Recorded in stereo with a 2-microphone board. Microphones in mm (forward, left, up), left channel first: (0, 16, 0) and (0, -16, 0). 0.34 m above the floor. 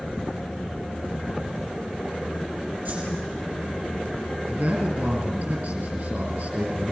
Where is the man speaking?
60° right (ahead or behind), 4 m.